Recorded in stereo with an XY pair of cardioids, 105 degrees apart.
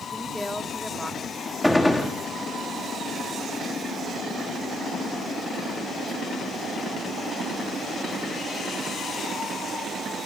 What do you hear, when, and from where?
0.1 s a woman speaking: 5° left, 3 m
1.6 s a gunshot: 10° left, 3.5 m